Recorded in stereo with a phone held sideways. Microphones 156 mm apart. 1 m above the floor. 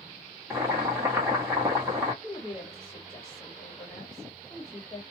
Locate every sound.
0.5 s boiling: 15° right (ahead or behind), 1.1 m
2.2 s a woman speaking: 25° left (ahead or behind), 1.3 m